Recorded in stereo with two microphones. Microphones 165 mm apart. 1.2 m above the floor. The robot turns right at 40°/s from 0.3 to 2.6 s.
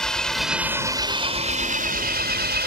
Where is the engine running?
175° left; by 2.7 s 90° right.